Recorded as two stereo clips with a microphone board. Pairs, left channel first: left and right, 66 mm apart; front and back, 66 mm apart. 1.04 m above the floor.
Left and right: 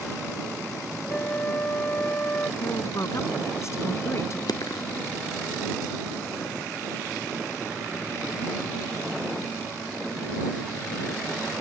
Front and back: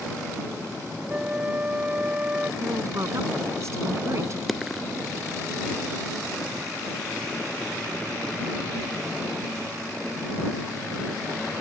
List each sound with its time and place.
1.1 s a flute: 125° left
2.6 s a woman speaking: 135° left
4.5 s a dropped coin: 90° left